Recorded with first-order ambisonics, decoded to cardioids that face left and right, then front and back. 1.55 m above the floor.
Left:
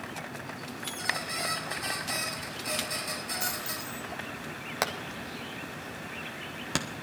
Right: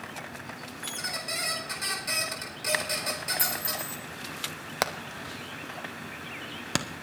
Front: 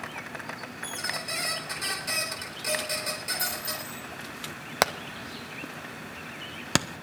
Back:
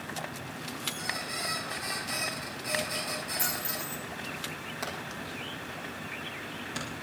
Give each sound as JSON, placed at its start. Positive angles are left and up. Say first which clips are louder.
{"t": 0.8, "sound": "a squeak", "louder": "left 1 dB, front 2 dB", "azimuth_deg": -45, "distance_m": 4.5}
{"t": 3.4, "sound": "a dropped coin", "louder": "right 3 dB, front 1 dB", "azimuth_deg": -100, "distance_m": 6.0}
{"t": 4.8, "sound": "hammering", "louder": "right 2 dB, front 13 dB", "azimuth_deg": -10, "distance_m": 0.8}